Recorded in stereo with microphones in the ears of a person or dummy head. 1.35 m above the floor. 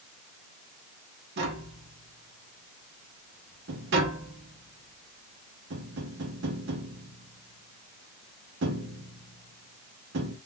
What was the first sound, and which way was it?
Tapping, 50° right (ahead or behind).